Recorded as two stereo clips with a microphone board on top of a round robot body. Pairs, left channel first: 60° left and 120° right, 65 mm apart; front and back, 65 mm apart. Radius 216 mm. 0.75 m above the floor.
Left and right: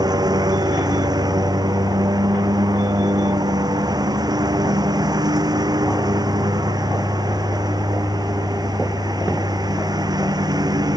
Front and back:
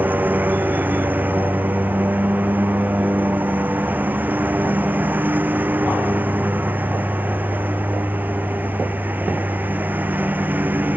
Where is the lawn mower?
115° right.